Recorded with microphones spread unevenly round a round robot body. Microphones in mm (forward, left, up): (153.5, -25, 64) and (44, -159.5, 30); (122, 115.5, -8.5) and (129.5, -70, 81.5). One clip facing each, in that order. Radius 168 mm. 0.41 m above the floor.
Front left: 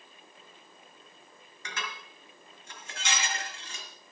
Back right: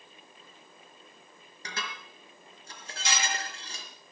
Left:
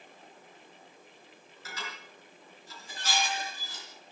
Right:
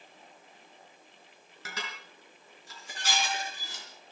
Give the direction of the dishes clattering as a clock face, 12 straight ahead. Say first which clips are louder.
Even, right 1 dB; 3 o'clock.